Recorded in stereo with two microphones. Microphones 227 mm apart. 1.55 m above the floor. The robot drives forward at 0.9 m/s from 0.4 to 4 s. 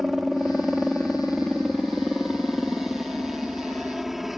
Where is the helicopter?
Centre (ahead or behind).